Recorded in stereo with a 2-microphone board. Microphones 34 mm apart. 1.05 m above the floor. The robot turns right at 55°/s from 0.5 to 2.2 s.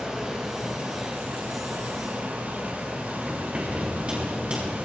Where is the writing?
30° right (ahead or behind), 5.5 m.